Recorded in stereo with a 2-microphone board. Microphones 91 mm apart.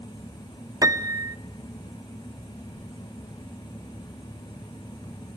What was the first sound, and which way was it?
A piano, 40° right (ahead or behind).